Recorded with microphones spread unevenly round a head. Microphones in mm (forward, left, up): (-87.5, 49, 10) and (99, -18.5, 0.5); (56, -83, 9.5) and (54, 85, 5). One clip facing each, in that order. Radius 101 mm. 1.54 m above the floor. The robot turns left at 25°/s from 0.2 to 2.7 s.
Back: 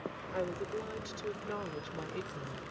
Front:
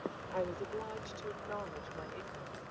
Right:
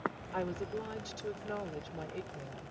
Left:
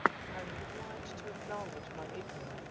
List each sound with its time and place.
0.3 s a woman speaking: 120° right; by 2.6 s 175° right